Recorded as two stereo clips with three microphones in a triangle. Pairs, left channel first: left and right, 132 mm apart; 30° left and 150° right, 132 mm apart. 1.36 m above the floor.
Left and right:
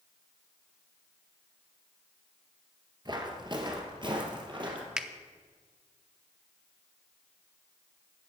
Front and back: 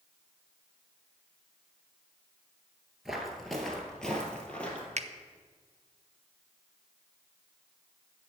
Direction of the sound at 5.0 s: 175° right.